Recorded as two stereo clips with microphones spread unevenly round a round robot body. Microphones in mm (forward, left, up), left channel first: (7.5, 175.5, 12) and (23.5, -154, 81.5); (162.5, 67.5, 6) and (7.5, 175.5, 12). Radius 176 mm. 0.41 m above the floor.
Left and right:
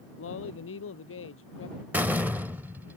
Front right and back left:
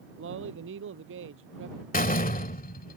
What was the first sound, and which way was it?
A man speaking, 145° left.